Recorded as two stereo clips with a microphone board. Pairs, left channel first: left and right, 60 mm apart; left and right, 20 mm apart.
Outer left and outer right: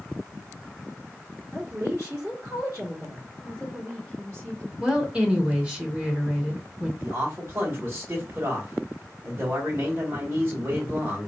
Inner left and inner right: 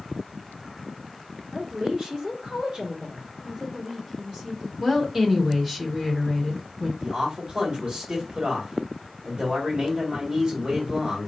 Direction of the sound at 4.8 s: 20° right (ahead or behind).